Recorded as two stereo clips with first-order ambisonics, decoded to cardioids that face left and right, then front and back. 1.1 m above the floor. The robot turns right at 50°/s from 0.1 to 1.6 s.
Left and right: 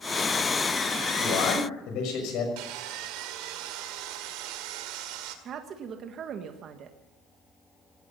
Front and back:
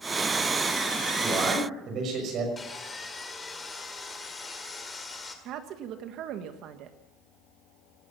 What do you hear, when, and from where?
1.2 s a man speaking: 105° left, 6 m; by 2.5 s 125° left, 6 m
2.6 s sawing: 75° right, 1.9 m
5.5 s a woman speaking: 140° right, 1.4 m